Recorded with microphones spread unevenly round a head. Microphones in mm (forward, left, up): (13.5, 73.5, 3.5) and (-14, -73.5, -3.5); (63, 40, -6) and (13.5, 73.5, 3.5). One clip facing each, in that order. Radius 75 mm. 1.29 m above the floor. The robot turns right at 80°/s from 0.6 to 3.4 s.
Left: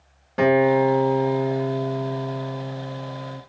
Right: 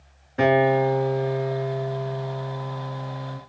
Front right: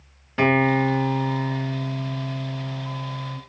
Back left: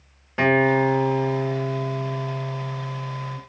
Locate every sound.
0.4 s a guitar: 65° left, 1.4 m; by 3.4 s 70° right, 1.4 m